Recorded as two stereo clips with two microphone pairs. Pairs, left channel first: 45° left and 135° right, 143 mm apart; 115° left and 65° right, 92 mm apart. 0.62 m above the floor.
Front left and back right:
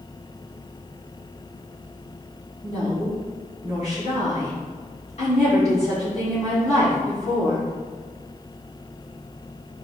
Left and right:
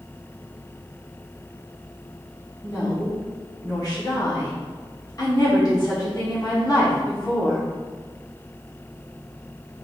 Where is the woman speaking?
75° left, 1.4 m.